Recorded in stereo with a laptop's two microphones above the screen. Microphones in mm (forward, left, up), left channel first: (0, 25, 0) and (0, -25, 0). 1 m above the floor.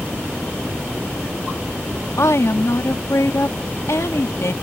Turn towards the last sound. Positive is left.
turn(degrees=80)